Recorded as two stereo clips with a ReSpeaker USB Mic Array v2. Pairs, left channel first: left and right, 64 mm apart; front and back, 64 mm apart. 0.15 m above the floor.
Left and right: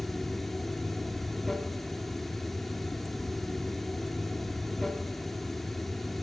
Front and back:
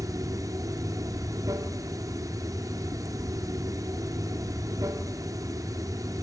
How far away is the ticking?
I don't hear ticking.